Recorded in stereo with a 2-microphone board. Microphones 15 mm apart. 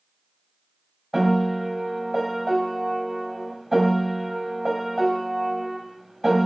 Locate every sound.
1.1 s a piano: centre (ahead or behind), 2 m